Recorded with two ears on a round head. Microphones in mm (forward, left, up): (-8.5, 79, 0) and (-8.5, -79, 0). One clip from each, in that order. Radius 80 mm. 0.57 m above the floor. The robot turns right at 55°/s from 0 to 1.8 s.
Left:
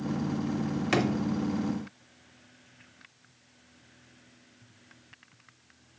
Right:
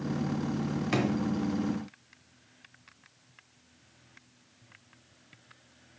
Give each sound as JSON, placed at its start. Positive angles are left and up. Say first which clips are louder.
{"t": 0.9, "sound": "a drawer", "louder": "left 3 dB", "side_deg": 20, "distance_m": 0.8}